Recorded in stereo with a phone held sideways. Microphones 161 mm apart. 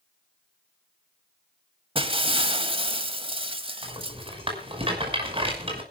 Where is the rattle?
30° right (ahead or behind), 5.5 m.